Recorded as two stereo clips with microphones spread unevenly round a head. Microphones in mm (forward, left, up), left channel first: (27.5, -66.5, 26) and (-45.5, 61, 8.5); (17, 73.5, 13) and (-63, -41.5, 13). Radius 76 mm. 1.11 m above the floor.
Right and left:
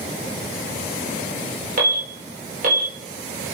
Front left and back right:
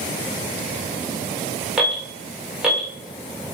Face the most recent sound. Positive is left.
turn(degrees=150)